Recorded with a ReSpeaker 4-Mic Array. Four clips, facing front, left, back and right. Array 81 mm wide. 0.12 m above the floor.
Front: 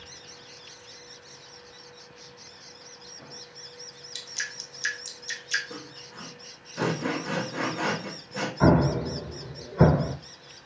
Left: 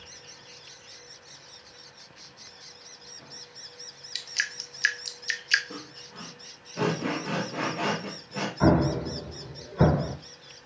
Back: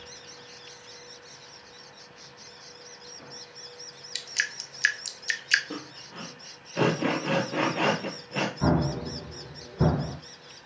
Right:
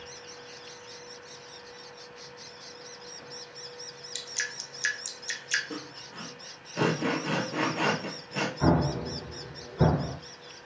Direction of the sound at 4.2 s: 145° left.